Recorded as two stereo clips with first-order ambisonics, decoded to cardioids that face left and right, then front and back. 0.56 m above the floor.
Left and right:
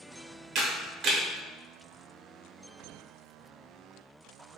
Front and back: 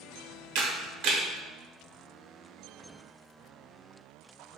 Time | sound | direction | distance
0.6 | a camera shutter | 145° right | 0.6 m